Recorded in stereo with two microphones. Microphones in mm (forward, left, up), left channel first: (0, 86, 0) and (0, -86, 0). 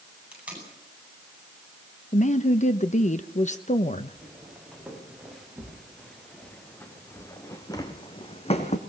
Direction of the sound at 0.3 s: 5° right (ahead or behind).